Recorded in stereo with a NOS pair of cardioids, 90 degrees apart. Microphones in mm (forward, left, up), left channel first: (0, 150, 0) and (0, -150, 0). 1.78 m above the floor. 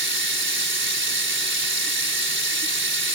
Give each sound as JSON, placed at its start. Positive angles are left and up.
{"t": 0.0, "sound": "running water", "azimuth_deg": -40}